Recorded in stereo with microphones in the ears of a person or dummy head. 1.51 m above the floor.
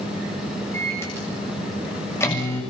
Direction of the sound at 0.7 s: 15° left (ahead or behind).